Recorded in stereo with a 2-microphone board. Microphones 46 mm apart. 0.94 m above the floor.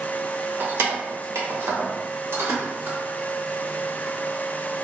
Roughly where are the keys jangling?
Right.